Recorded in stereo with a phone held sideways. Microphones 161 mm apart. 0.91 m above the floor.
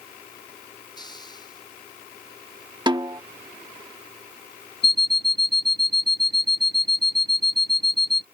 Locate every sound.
1.0 s a hiss: 25° left (ahead or behind)
2.9 s a snare drum: 25° right (ahead or behind)
4.8 s an alarm clock: 85° left